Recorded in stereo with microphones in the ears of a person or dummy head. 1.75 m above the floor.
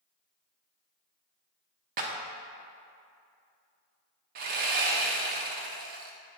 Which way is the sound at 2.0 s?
45° right (ahead or behind).